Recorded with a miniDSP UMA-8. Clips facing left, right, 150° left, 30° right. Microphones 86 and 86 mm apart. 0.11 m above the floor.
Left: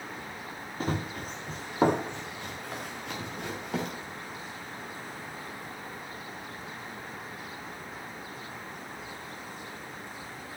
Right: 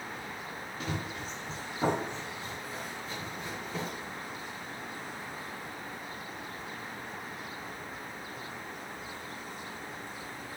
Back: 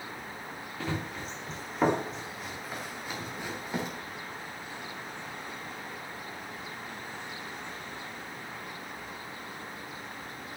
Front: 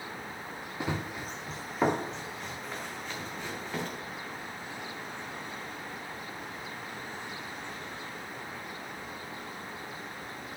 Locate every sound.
0.8 s running footsteps: 40° left, 1.3 m; by 3.9 s 75° left, 2.5 m